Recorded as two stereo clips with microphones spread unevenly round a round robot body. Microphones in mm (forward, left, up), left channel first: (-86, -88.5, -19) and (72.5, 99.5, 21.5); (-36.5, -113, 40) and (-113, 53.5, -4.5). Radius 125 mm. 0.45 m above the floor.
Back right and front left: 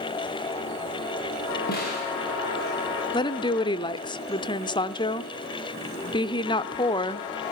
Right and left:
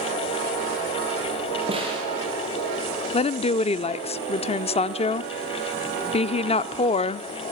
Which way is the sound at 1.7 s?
175° left.